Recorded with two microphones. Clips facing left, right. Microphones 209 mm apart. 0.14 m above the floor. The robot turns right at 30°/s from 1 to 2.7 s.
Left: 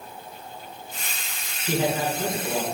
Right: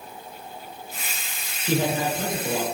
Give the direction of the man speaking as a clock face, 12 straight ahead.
5 o'clock.